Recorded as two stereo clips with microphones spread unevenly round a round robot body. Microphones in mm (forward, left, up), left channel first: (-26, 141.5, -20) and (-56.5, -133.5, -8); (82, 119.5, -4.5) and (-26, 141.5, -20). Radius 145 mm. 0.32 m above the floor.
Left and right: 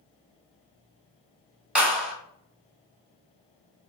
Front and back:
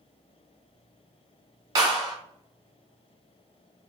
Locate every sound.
1.8 s a clap: 175° left, 1.3 m